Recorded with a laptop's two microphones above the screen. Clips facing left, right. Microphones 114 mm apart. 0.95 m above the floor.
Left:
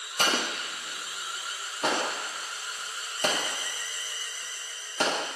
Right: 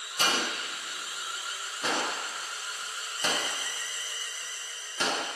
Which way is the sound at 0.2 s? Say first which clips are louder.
Left 1 dB; 55° left (ahead or behind).